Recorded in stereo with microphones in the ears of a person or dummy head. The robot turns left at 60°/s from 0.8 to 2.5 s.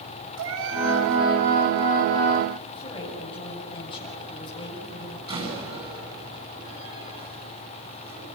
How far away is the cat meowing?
About 3.5 m.